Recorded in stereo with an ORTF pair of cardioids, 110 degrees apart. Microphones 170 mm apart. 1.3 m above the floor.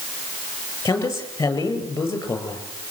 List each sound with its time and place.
0.8 s a man speaking: 15° left, 8.5 m